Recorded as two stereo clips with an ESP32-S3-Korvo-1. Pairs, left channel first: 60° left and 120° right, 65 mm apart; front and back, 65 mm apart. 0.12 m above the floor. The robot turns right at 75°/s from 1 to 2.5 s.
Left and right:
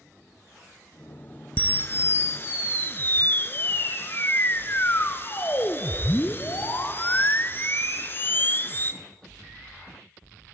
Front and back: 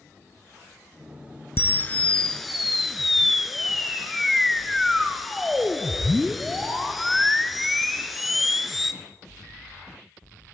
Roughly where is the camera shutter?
Ahead.